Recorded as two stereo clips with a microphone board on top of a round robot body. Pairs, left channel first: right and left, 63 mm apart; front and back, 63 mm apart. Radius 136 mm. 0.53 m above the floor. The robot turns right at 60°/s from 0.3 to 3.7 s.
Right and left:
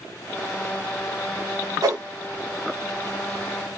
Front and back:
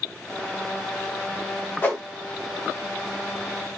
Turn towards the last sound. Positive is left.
turn(degrees=175)